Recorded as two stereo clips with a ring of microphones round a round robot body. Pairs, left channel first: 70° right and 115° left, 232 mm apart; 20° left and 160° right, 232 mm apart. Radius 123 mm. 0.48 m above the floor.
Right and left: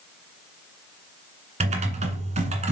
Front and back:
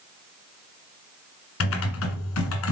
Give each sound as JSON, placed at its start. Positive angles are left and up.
{"t": 1.6, "sound": "typing on a keyboard", "azimuth_deg": 50, "distance_m": 1.8}